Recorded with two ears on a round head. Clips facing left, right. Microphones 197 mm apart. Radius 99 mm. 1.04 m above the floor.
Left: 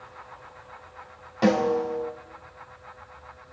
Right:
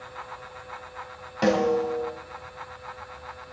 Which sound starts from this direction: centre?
A snare drum, at 1.4 s.